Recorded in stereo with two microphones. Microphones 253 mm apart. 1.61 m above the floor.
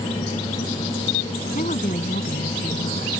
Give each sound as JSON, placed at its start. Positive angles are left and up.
{"t": 1.6, "sound": "a woman speaking", "side_deg": 30}